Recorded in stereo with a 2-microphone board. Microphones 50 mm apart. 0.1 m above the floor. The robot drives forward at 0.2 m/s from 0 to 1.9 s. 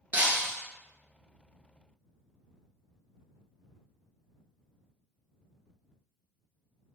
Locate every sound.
0.1 s breaking glass: 35° right (ahead or behind), 0.6 m; by 0.5 s 30° right (ahead or behind), 0.7 m